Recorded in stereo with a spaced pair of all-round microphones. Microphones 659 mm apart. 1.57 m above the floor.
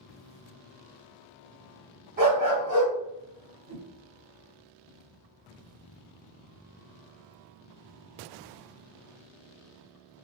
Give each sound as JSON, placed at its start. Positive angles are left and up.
{"t": 2.2, "sound": "a dog barking", "side_deg": -15, "distance_m": 1.9}
{"t": 3.7, "sound": "a whoosh", "side_deg": -20, "distance_m": 1.9}